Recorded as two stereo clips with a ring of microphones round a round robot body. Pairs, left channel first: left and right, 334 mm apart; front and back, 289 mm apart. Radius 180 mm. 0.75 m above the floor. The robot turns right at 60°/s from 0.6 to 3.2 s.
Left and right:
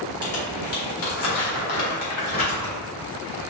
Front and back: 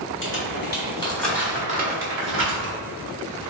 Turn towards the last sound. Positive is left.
turn(degrees=-155)